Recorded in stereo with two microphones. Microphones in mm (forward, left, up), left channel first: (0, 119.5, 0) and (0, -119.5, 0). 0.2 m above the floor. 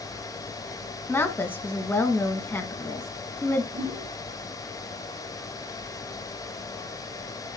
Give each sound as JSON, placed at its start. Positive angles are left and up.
{"t": 1.1, "sound": "a woman speaking", "side_deg": 10, "distance_m": 1.6}
{"t": 3.7, "sound": "a whoosh", "side_deg": -60, "distance_m": 3.0}